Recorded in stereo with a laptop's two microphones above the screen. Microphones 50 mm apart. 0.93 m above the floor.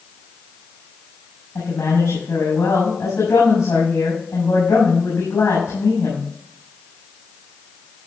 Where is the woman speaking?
75° left (ahead or behind), 6 m.